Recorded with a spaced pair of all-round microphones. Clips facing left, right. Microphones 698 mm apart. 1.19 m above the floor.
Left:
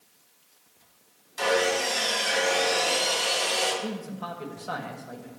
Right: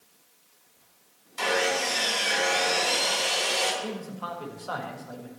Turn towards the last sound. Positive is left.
turn(degrees=50)  # may be behind; listen again after turning